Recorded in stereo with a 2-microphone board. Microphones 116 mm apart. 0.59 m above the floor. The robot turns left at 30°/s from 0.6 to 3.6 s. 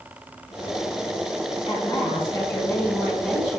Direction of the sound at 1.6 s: 55° left.